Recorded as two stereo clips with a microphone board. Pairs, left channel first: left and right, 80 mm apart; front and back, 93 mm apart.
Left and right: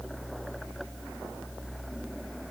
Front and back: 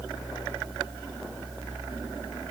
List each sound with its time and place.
Only background noise.